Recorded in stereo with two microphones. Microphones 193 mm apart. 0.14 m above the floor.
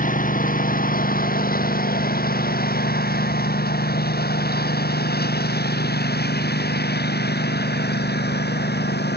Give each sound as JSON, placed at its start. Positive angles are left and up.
{"t": 0.0, "sound": "a lawn mower", "side_deg": 45}